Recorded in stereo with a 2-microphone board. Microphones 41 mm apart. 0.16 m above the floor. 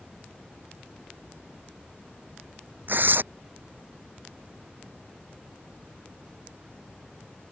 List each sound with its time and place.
2.9 s tearing paper: 55° right (ahead or behind)